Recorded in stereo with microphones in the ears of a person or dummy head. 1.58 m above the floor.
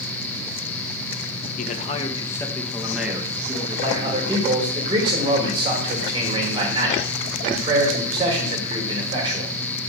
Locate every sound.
1.6 s a man speaking: 50° left (ahead or behind), 1.7 m; by 4.5 s 25° right (ahead or behind), 3 m
3.8 s a man speaking: 20° right (ahead or behind), 4.5 m